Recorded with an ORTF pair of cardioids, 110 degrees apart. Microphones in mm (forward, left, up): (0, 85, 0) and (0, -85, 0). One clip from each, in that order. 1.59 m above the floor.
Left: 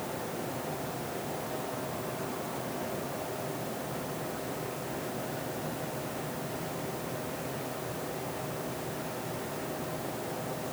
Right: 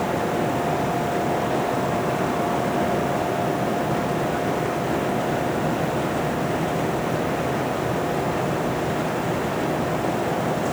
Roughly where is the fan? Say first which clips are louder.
Right 14 dB; ahead right.